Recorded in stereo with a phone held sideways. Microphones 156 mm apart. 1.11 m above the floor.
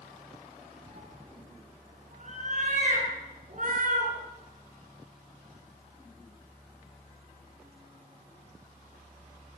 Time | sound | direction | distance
0.9 | a cat meowing | 45° right (ahead or behind) | 7.5 m